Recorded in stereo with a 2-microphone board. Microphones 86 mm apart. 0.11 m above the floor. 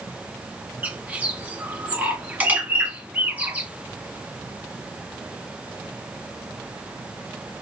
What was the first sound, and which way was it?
A bird, 20° right (ahead or behind).